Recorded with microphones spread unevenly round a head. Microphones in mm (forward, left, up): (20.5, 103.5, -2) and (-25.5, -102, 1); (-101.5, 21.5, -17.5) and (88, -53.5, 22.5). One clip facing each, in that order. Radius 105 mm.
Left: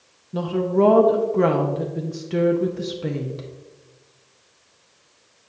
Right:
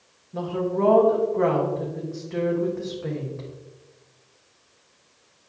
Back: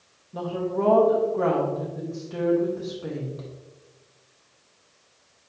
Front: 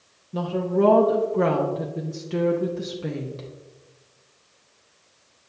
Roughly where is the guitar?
I don't hear a guitar.